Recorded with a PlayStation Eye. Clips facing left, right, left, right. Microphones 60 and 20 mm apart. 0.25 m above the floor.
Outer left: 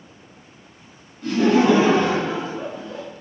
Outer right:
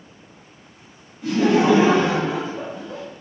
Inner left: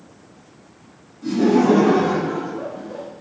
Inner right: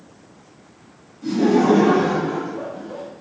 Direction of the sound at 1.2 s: 10° right (ahead or behind).